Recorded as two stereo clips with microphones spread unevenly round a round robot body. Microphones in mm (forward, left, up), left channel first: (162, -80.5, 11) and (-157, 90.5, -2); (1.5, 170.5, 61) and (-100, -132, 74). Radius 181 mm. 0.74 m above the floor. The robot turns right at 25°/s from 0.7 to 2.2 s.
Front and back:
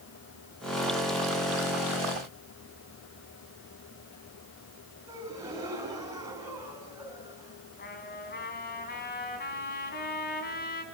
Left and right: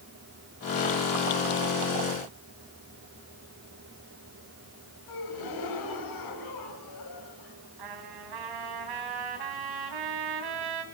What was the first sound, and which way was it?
A gasp, 70° left.